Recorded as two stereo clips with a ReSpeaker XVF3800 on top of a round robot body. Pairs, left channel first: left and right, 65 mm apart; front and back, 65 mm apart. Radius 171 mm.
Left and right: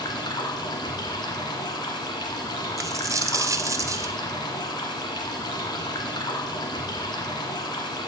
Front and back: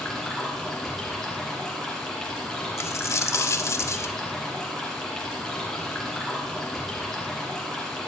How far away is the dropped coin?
About 1.0 m.